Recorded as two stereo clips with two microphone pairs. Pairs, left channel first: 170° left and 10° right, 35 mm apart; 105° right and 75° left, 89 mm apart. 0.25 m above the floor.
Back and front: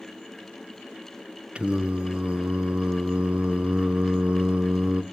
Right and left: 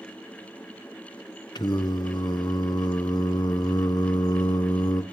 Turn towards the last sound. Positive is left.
turn(degrees=-70)